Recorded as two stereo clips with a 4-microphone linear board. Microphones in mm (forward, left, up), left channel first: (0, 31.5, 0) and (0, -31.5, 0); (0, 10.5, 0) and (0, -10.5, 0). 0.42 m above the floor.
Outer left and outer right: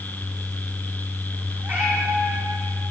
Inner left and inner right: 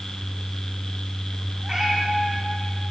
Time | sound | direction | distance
1.6 | a cat meowing | 35° right (ahead or behind) | 6.5 m